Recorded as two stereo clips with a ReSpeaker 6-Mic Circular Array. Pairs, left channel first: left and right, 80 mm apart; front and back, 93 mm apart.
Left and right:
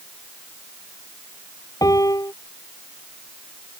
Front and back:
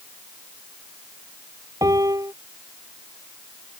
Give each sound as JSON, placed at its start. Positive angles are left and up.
{"t": 1.8, "sound": "a piano", "azimuth_deg": 130}